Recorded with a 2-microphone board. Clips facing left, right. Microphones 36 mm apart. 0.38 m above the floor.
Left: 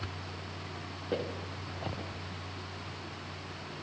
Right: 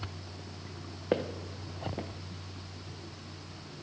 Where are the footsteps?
45° right (ahead or behind), 1.3 m.